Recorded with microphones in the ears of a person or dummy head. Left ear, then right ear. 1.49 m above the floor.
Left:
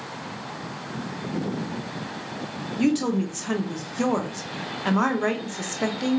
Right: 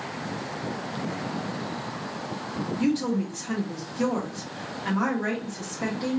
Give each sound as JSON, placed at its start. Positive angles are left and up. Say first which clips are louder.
{"t": 2.8, "sound": "a woman speaking", "louder": "left 4 dB", "side_deg": 30, "distance_m": 0.6}